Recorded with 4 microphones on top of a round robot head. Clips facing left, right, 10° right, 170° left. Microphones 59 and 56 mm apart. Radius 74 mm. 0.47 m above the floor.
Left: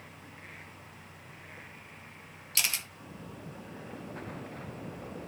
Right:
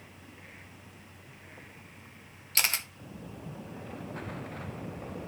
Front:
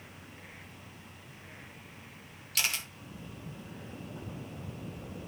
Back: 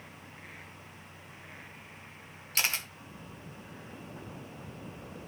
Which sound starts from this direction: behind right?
A camera shutter, at 2.5 s.